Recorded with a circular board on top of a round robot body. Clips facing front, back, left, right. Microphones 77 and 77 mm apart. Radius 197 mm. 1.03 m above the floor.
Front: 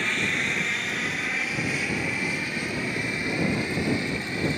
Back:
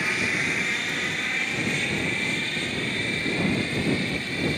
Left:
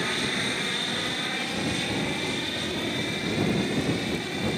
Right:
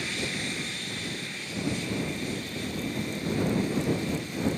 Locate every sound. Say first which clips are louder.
0.0 s an aircraft: back 1 dB, left 5 dB; 100° left; by 4.6 s 70° left